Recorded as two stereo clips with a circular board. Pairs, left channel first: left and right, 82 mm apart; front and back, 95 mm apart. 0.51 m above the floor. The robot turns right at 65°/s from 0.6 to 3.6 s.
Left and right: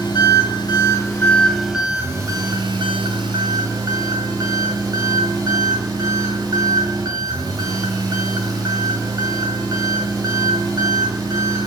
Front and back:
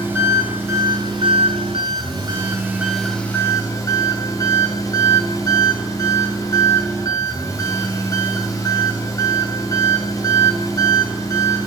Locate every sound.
0.0 s an engine running: 115° left, 2 m; by 11.7 s 50° right, 2 m